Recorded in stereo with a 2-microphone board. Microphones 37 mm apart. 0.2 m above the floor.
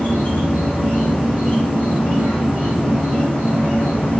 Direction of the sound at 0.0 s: 50° left (ahead or behind).